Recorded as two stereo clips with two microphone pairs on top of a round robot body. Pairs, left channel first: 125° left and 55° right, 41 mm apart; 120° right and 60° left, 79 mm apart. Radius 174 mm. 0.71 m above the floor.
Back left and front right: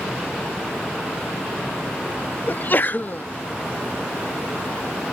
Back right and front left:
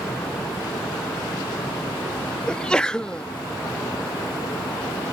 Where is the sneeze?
160° left.